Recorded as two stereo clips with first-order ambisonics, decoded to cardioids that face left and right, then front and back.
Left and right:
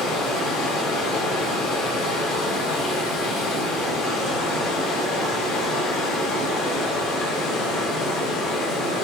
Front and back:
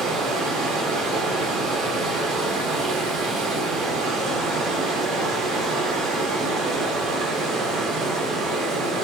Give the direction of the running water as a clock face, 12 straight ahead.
8 o'clock.